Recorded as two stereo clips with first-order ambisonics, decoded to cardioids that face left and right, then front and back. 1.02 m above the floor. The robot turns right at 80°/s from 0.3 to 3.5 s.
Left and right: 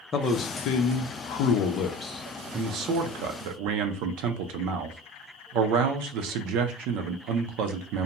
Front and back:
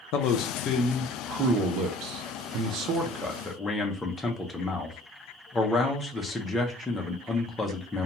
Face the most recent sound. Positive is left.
turn(degrees=-80)